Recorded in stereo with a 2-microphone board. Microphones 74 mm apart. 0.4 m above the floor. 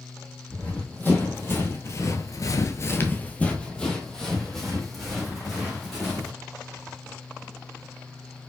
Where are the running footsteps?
25° left (ahead or behind), 1.4 m; by 6.3 s centre (ahead or behind), 2.5 m.